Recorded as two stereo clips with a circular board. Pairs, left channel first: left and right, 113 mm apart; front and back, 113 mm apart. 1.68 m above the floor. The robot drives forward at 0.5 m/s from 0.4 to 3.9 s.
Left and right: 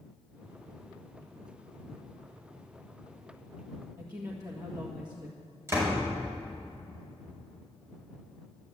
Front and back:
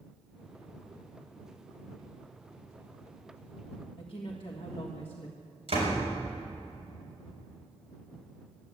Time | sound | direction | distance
4.0 | a woman speaking | 35° right | 1.7 m
5.7 | a door slam | 155° right | 5 m